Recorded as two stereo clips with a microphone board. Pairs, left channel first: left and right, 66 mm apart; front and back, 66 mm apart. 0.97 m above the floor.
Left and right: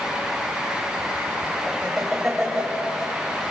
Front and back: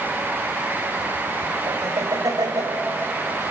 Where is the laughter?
170° right, 4 m.